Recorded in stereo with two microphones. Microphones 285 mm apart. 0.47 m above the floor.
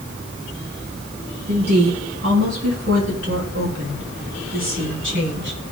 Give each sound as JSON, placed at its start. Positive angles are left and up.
{"t": 1.5, "sound": "a woman speaking", "side_deg": -60, "distance_m": 6.5}